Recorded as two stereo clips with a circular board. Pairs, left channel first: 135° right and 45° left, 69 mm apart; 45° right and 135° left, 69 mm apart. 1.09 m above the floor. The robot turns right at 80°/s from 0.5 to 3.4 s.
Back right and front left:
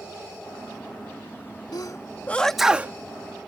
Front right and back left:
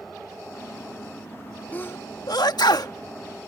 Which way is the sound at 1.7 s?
115° right.